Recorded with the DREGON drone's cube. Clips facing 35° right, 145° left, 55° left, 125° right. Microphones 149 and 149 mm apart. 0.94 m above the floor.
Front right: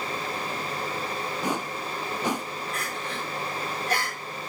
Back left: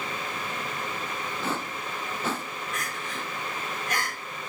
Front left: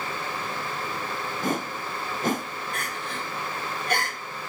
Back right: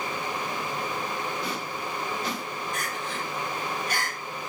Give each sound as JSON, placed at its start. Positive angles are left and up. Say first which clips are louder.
{"t": 1.4, "sound": "a whoosh", "louder": "front right 2 dB, front left 4 dB", "azimuth_deg": 40, "distance_m": 0.6}
{"t": 2.7, "sound": "crying", "louder": "front right 2 dB, back right 1 dB", "azimuth_deg": 25, "distance_m": 4.5}